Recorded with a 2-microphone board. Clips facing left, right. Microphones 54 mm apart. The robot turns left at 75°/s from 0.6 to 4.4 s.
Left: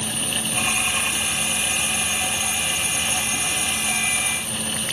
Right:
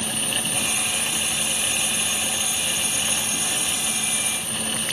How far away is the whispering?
No whispering in this recording.